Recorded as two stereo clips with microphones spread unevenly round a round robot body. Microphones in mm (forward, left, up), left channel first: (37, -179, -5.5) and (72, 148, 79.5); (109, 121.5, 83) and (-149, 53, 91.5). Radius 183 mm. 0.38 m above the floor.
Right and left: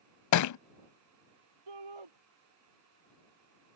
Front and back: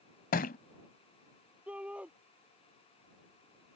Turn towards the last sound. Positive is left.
turn(degrees=110)